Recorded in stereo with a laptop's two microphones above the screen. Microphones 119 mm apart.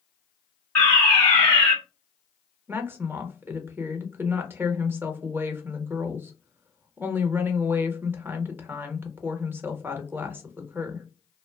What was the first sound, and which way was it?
A fire alarm, 15° left (ahead or behind).